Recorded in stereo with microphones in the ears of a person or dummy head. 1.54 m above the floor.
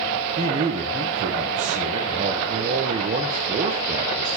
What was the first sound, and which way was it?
A man speaking, 35° right (ahead or behind).